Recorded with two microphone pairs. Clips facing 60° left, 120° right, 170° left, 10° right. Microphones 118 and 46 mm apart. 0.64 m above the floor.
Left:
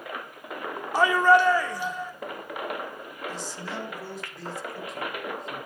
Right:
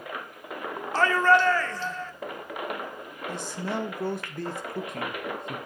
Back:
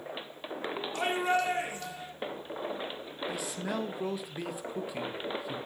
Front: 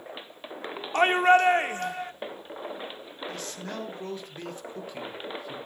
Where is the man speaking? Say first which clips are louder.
Right 6 dB, back 3 dB; 110° right, 1.9 m.